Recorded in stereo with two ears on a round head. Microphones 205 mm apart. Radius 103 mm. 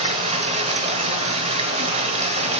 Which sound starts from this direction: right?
Running water, at 0.0 s.